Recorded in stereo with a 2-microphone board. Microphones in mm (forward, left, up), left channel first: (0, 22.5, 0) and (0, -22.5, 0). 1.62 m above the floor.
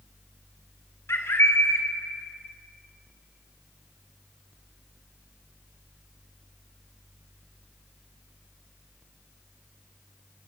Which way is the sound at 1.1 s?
80° left.